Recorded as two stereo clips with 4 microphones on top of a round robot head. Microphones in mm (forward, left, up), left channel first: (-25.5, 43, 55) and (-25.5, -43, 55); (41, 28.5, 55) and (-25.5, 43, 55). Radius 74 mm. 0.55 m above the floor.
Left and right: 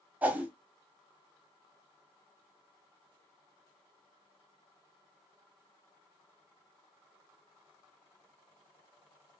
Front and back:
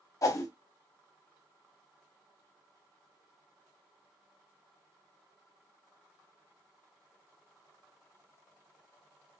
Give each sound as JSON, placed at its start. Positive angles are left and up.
{"t": 0.2, "sound": "a whoosh", "azimuth_deg": -20, "distance_m": 0.6}